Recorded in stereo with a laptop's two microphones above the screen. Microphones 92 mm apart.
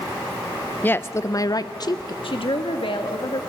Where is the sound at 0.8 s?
20° left (ahead or behind), 0.6 m; by 2.1 s 45° left (ahead or behind), 0.7 m.